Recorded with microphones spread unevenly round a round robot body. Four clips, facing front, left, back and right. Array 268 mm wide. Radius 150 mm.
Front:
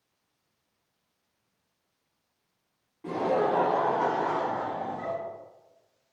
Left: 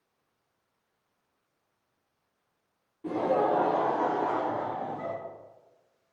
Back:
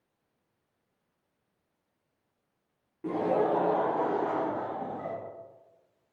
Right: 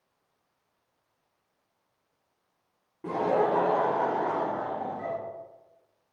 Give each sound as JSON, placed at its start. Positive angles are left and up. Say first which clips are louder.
{"t": 3.0, "sound": "laughter", "louder": "right 1 dB, front 1 dB", "azimuth_deg": -130, "distance_m": 1.1}